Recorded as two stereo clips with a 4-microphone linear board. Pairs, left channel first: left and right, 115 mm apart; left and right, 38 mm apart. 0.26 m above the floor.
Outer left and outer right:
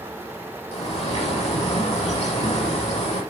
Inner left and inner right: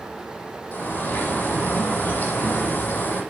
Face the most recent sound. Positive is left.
turn(degrees=70)  # may be behind; listen again after turning